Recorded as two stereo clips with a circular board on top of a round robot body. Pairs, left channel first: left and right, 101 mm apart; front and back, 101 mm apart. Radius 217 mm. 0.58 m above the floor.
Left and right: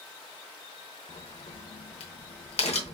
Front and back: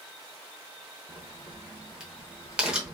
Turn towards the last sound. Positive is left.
turn(degrees=100)